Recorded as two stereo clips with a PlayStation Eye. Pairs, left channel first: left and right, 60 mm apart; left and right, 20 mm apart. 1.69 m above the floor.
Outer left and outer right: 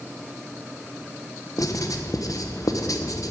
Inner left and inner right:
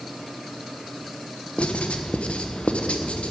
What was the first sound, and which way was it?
Writing, 65° left (ahead or behind).